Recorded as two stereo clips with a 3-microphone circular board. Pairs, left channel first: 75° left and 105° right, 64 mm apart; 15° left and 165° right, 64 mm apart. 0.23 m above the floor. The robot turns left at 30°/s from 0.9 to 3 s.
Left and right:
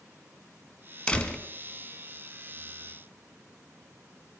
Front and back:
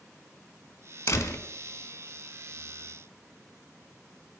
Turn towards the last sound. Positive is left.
turn(degrees=-50)